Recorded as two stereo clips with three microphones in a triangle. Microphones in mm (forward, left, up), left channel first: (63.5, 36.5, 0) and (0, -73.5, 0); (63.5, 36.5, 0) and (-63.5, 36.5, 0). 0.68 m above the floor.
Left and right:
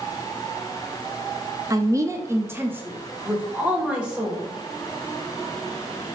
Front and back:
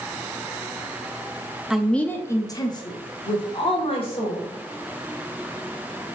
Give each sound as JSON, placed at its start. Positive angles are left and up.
{"t": 1.7, "sound": "a woman speaking", "azimuth_deg": -100, "distance_m": 0.5}